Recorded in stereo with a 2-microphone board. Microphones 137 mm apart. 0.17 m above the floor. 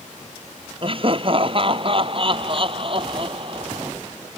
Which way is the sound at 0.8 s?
40° right (ahead or behind).